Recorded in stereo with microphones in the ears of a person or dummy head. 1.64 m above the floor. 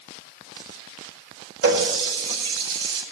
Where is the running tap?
65° right (ahead or behind), 4 m.